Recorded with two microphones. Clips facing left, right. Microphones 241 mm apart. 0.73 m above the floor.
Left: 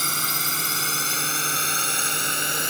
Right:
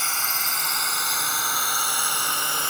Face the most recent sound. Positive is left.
turn(degrees=20)  # may be behind; listen again after turning